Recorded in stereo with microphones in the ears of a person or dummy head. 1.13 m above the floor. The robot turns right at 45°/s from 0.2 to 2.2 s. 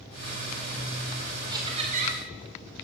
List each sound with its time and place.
1.5 s laughter: 160° right, 0.8 m; by 2.2 s 130° right, 0.8 m